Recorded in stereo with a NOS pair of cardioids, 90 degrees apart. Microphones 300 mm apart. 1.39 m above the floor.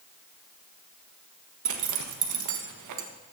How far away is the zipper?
About 1.6 m.